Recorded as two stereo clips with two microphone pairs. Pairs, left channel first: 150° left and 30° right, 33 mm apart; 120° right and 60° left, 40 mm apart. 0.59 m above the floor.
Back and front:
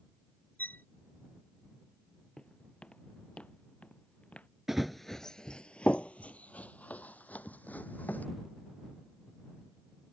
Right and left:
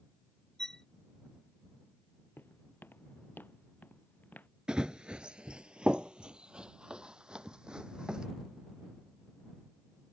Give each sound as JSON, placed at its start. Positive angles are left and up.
{"t": 0.6, "sound": "a violin", "azimuth_deg": 165}
{"t": 2.4, "sound": "footsteps", "azimuth_deg": -150}
{"t": 4.7, "sound": "running footsteps", "azimuth_deg": 45}